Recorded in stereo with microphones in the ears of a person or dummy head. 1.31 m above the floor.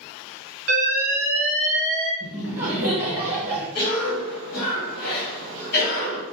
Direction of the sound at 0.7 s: 15° right (ahead or behind).